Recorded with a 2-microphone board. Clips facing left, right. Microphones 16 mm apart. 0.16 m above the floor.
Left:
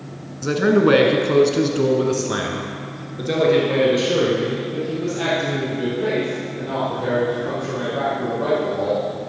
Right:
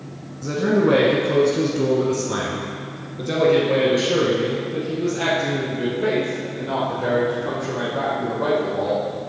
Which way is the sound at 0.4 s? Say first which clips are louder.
Left 3 dB; 45° left (ahead or behind).